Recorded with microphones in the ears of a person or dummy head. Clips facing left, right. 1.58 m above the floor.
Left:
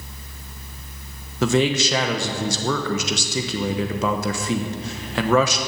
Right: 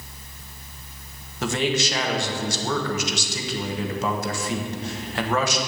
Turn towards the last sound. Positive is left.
turn(degrees=75)  # may be behind; listen again after turning